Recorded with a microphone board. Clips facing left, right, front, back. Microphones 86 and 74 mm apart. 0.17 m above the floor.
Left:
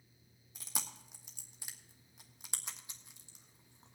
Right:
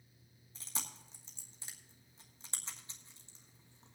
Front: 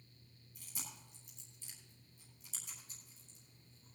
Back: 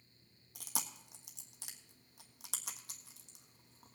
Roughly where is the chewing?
Behind.